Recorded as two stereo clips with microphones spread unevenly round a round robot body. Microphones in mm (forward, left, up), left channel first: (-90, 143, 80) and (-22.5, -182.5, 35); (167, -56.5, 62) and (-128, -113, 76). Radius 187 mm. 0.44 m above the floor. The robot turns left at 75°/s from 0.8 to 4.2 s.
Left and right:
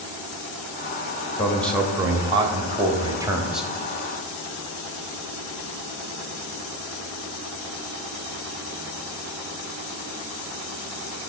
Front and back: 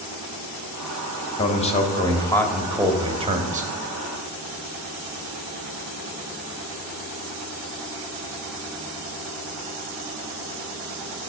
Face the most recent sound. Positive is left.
turn(degrees=170)